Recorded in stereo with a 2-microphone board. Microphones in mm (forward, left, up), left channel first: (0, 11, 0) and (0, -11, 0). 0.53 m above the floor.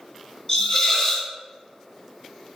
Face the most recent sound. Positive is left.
turn(degrees=30)  # may be behind; listen again after turning